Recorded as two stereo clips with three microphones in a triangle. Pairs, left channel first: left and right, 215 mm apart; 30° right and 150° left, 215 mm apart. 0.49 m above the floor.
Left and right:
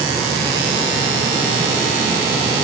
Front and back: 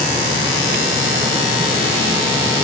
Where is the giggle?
No giggle in this recording.